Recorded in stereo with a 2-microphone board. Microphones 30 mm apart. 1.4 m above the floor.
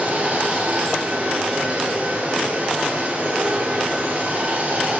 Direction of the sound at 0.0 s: 70° right (ahead or behind).